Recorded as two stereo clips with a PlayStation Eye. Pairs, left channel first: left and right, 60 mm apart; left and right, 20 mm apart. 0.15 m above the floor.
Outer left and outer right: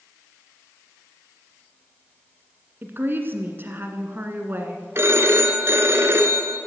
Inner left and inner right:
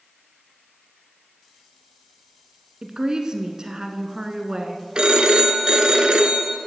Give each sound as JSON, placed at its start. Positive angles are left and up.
{"t": 2.8, "sound": "a woman speaking", "side_deg": -35, "distance_m": 1.6}
{"t": 5.0, "sound": "a phone ringing", "side_deg": -45, "distance_m": 1.2}